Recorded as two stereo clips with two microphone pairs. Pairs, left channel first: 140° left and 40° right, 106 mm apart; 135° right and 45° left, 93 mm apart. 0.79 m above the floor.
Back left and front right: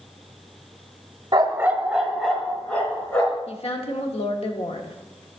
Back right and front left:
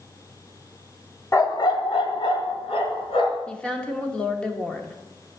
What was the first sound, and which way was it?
A dog barking, 85° right.